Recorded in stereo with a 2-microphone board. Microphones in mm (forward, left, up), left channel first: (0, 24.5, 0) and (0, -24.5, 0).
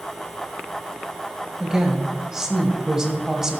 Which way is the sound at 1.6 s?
10° right (ahead or behind).